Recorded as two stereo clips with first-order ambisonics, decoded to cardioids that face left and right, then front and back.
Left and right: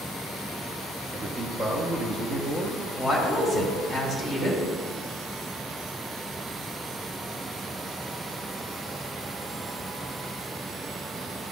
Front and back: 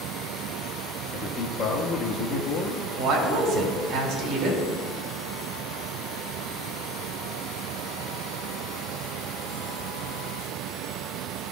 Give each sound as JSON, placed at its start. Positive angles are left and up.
{"t": 1.1, "sound": "a man speaking", "azimuth_deg": -25, "distance_m": 0.6}
{"t": 3.0, "sound": "a woman speaking", "azimuth_deg": -170, "distance_m": 1.8}